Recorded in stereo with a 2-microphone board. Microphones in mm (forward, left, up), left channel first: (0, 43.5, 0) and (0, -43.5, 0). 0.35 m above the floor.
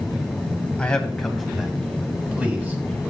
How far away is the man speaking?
About 1.8 m.